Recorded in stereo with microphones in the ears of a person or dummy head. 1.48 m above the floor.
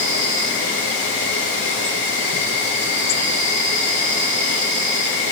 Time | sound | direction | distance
0.0 | an insect | 70° left (ahead or behind) | 4.5 m